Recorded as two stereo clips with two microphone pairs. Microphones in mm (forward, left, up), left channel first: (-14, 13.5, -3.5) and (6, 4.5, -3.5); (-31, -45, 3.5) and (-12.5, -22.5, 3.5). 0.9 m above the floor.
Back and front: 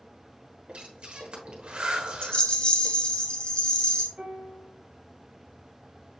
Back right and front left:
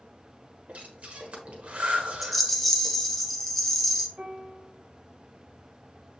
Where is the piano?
15° left, 1.0 m.